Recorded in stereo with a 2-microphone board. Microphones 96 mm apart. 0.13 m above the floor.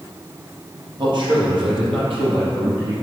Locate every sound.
1.0 s a man speaking: 55° right (ahead or behind), 3.5 m; by 2.9 s 65° right (ahead or behind), 5.5 m